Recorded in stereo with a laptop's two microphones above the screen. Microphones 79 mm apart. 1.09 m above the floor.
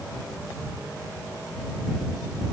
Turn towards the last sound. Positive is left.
No sound to turn to.